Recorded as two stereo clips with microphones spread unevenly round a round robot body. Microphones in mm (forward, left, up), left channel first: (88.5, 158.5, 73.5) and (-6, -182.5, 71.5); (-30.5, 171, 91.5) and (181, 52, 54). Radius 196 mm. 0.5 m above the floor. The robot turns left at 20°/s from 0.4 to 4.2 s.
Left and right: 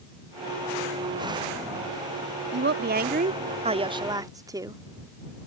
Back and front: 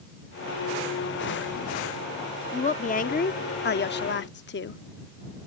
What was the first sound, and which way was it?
A woman speaking, 145° right.